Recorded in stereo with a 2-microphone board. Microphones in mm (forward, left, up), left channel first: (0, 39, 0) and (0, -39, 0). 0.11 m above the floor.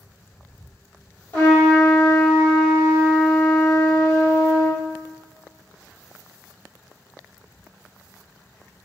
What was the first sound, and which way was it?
A trumpet, 30° left (ahead or behind).